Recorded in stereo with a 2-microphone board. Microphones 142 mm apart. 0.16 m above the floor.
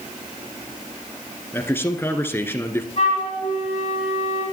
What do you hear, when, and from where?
1.5 s a man speaking: 15° left (ahead or behind), 1.9 m
3.0 s a flute: 45° left (ahead or behind), 8 m